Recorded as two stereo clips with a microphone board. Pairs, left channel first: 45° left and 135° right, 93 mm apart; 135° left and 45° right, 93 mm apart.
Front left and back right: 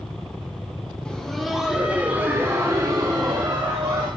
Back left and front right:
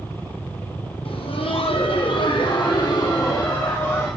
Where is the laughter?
125° left, 1.3 m; by 4.1 s 165° right, 1.5 m.